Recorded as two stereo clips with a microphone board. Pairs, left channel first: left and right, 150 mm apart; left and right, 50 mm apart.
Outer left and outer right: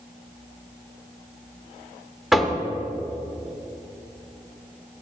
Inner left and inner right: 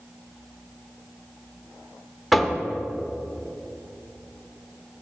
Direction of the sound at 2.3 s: Centre (ahead or behind).